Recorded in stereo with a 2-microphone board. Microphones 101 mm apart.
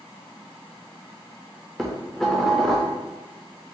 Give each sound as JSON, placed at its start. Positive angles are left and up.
{"t": 1.8, "sound": "dishes clattering", "side_deg": 5, "distance_m": 0.6}